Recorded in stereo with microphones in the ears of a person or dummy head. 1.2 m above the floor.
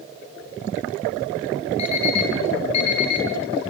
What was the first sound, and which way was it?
An alarm clock, 35° left (ahead or behind).